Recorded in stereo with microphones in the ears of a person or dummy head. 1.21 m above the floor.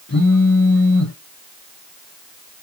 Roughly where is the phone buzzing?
Left.